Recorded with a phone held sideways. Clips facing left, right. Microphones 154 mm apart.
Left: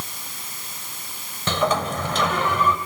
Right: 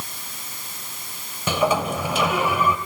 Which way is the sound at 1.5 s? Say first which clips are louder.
Right 1 dB; 10° right (ahead or behind).